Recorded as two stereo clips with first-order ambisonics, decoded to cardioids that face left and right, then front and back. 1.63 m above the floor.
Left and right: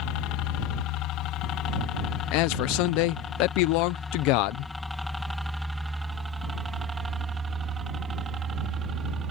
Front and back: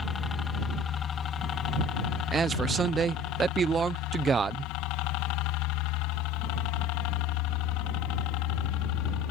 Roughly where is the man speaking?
Left.